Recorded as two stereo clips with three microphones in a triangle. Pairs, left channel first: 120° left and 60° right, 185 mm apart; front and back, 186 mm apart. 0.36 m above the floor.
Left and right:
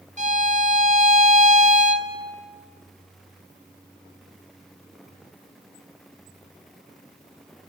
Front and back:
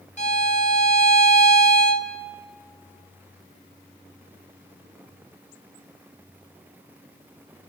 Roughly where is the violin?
Ahead right.